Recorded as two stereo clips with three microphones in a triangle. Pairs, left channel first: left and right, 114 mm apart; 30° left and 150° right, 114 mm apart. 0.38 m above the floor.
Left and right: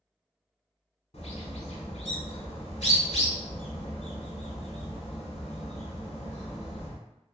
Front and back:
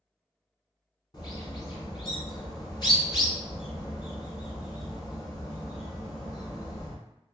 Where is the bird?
80° left, 0.8 m.